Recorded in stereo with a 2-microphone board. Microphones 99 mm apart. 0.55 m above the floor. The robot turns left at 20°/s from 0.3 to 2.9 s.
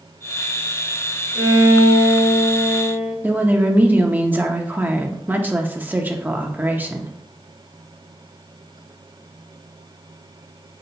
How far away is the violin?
About 2.5 m.